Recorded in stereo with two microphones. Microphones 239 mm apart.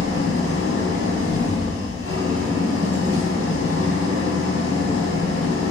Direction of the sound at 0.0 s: 65° left (ahead or behind).